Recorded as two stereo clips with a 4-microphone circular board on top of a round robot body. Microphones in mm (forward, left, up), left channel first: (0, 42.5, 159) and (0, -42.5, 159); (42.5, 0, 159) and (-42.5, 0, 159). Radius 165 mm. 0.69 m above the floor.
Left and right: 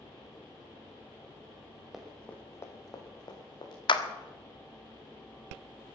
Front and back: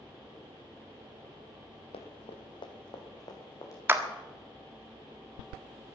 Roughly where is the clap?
Behind left.